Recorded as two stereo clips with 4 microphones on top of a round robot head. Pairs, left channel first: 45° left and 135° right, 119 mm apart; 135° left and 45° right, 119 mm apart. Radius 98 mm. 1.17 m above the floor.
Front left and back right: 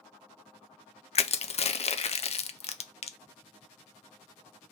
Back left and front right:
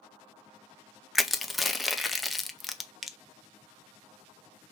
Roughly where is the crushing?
Ahead left.